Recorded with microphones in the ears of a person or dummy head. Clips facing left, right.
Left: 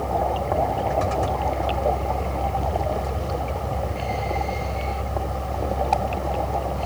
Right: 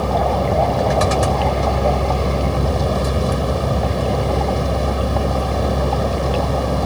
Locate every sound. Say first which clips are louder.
0.0 s a vehicle: right 6 dB; 85° right